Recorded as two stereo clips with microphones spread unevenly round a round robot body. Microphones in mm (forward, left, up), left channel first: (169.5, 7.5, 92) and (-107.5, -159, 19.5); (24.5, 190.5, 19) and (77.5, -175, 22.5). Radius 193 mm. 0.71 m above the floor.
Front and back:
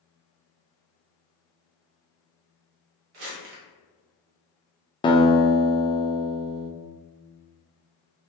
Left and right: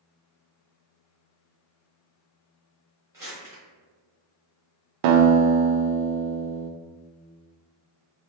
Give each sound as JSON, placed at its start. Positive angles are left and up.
{"t": 3.1, "sound": "crumpling", "azimuth_deg": -165, "distance_m": 1.0}
{"t": 5.0, "sound": "a guitar", "azimuth_deg": -45, "distance_m": 0.5}